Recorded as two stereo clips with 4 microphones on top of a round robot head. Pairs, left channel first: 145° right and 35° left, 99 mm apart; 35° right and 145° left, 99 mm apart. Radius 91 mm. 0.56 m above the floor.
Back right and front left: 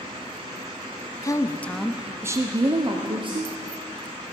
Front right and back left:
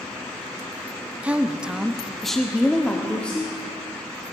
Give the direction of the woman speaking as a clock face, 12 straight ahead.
5 o'clock.